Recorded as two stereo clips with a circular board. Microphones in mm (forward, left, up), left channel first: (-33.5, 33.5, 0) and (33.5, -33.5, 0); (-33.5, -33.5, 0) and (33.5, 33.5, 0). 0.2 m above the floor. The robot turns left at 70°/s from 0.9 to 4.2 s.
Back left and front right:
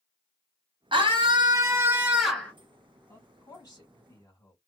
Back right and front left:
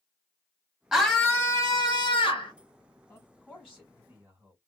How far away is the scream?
About 1.6 m.